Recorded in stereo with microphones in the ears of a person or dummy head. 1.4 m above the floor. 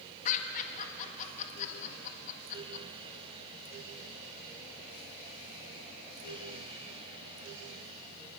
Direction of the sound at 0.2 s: 40° left (ahead or behind).